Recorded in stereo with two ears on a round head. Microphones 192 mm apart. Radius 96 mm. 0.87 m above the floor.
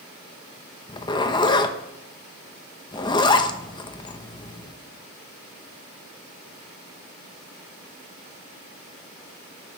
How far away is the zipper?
About 0.8 m.